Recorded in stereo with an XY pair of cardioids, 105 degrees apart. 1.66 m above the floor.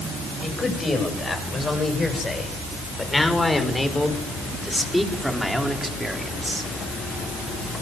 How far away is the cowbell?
No cowbell in this recording.